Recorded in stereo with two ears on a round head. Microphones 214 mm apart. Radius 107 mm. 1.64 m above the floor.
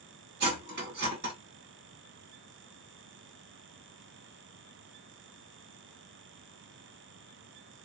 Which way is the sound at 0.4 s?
45° right (ahead or behind).